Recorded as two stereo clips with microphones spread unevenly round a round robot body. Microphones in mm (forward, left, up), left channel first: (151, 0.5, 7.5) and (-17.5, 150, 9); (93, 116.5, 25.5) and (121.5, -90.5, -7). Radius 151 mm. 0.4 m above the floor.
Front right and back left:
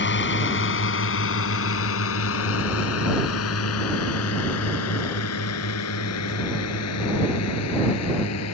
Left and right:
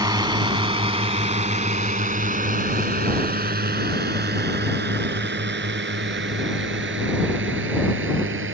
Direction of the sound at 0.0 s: 10° right.